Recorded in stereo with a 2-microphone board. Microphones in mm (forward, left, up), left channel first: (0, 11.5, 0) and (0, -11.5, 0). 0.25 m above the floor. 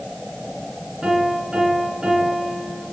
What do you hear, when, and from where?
1.0 s a piano: 40° right (ahead or behind), 2.5 m